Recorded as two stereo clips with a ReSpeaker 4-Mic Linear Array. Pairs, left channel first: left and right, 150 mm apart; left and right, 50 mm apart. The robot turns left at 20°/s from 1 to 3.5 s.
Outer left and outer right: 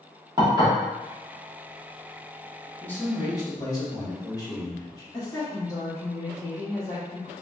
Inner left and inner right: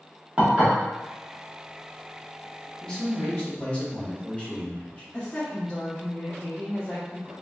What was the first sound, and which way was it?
Dishes clattering, 30° right (ahead or behind).